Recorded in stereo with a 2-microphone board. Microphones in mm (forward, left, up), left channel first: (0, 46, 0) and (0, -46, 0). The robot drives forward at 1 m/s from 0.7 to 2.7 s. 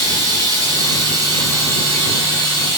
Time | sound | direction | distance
0.0 | running water | 45° right (ahead or behind) | 4 m